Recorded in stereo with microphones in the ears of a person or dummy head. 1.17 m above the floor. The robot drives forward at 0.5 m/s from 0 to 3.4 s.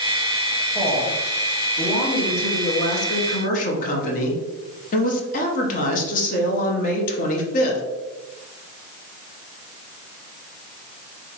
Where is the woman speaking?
15° left (ahead or behind), 1.8 m; by 7.8 s 40° left (ahead or behind), 0.8 m.